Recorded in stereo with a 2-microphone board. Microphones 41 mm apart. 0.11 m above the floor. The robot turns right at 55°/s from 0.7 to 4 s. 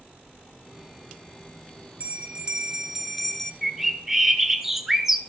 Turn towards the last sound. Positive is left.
turn(degrees=-10)  # may be behind; listen again after turning